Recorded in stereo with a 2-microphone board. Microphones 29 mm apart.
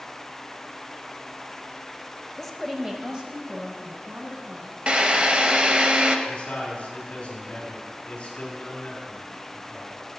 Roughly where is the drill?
Right.